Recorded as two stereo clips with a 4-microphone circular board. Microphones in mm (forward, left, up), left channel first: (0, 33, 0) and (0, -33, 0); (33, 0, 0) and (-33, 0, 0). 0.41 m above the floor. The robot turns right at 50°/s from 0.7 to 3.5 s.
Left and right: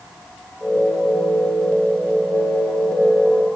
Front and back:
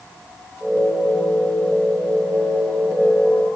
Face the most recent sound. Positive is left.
No sound to turn to.